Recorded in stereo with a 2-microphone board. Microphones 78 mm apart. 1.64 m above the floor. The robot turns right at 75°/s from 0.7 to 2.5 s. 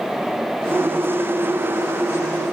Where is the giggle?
I don't hear a giggle.